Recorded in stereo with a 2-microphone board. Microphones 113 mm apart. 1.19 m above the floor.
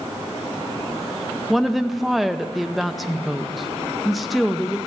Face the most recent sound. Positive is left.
turn(degrees=0)  # may be behind; listen again after turning